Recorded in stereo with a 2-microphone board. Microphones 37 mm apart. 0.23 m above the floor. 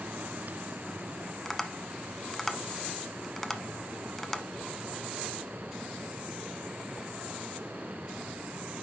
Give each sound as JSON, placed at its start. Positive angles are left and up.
{"t": 1.4, "sound": "tapping", "side_deg": 10, "distance_m": 0.9}